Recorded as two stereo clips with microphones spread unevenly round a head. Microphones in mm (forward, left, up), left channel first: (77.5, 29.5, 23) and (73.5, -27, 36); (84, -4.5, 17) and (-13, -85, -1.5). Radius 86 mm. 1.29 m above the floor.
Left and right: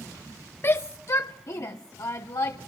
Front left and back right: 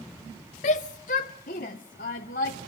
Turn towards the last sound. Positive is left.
turn(degrees=75)